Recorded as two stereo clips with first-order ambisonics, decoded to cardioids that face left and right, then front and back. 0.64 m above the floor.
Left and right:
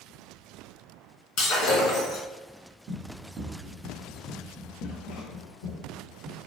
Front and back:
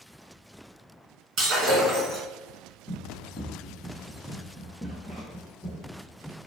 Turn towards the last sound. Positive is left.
turn(degrees=90)